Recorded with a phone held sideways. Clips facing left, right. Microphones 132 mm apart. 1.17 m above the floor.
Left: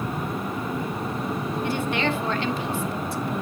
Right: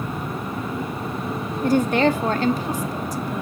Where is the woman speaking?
40° right (ahead or behind), 1.1 m.